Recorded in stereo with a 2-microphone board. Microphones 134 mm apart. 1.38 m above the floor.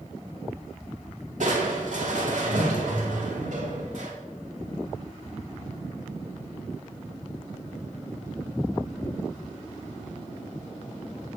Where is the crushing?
65° right (ahead or behind), 2 m.